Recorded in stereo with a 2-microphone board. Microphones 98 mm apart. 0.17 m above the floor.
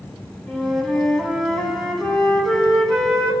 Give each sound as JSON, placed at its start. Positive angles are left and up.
{"t": 0.5, "sound": "a flute", "side_deg": 5, "distance_m": 1.5}